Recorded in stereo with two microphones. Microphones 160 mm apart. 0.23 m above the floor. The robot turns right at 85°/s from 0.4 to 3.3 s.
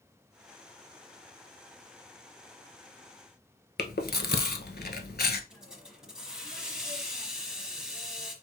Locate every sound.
3.8 s chewing: 80° left, 0.7 m
5.5 s a hiss: 5° right (ahead or behind), 1.1 m